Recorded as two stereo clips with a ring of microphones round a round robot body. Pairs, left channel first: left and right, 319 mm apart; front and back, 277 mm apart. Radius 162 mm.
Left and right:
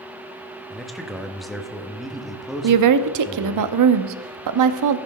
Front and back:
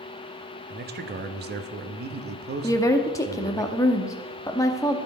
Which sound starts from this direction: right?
A woman speaking, at 2.6 s.